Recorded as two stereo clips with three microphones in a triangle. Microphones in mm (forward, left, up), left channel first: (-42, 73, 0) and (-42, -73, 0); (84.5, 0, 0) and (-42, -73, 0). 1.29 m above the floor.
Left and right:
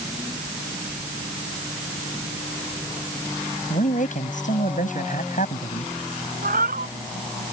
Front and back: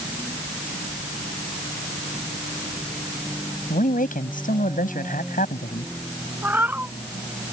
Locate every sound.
3.7 s a man speaking: 55° left
6.4 s a cat meowing: 70° right